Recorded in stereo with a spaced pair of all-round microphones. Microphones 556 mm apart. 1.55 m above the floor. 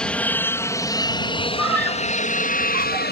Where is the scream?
70° right (ahead or behind).